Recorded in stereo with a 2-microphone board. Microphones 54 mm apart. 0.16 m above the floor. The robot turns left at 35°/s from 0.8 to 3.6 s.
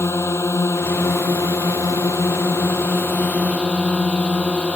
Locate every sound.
0.0 s a drone: 120° left; by 4.8 s 25° left